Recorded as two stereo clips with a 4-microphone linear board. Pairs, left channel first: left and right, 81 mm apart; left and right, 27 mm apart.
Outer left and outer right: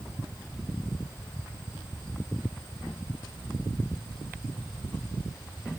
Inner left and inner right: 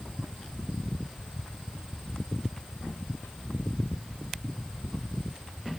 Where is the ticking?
I don't hear ticking.